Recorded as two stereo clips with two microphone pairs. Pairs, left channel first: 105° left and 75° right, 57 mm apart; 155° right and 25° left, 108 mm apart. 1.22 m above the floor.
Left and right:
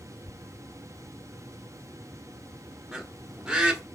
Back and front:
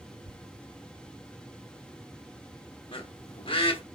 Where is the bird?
150° right, 1.1 m.